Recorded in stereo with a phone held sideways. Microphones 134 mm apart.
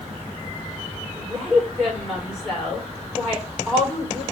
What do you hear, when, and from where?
1.2 s a woman speaking: centre (ahead or behind), 5 m